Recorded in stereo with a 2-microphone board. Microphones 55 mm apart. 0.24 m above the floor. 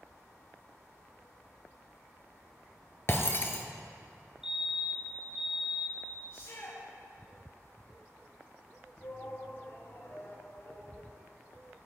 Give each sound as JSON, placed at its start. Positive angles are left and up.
{"t": 3.1, "sound": "breaking glass", "side_deg": 50, "distance_m": 1.4}
{"t": 4.4, "sound": "a fire alarm", "side_deg": -10, "distance_m": 2.5}
{"t": 6.3, "sound": "a shout", "side_deg": 70, "distance_m": 3.0}
{"t": 9.0, "sound": "a shout", "side_deg": 50, "distance_m": 4.5}